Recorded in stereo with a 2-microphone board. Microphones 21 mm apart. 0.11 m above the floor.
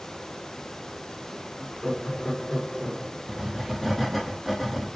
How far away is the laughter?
About 1.7 m.